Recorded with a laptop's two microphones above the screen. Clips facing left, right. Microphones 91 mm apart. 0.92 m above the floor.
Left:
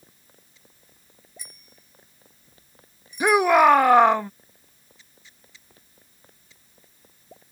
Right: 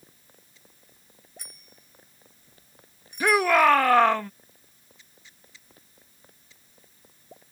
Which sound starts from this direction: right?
A bicycle bell, at 1.4 s.